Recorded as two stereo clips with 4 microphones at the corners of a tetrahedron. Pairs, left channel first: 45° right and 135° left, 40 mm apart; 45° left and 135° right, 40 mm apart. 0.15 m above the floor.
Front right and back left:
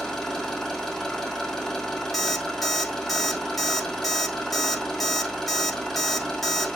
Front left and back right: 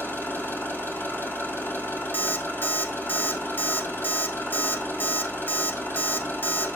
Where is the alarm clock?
40° left, 0.9 m.